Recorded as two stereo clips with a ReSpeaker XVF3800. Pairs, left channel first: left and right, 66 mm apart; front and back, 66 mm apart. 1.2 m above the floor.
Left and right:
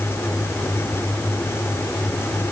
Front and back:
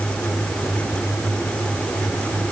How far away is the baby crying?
No baby crying in this recording.